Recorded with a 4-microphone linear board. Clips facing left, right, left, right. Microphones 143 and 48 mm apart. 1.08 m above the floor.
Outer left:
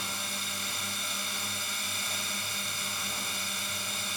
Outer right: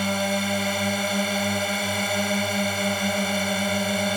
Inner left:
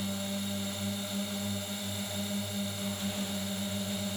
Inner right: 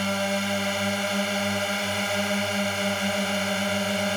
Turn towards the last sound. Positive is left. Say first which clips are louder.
# outer right 17 dB, inner right 10 dB
turn(degrees=-65)  # may be behind; listen again after turning